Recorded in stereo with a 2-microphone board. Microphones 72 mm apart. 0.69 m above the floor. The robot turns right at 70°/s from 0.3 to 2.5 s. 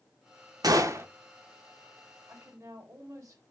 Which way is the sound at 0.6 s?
65° right (ahead or behind).